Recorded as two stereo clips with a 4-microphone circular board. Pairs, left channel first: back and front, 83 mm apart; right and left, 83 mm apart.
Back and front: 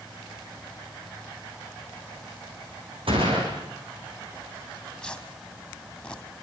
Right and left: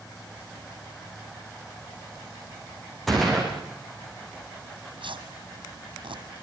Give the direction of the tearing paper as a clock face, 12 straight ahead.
9 o'clock.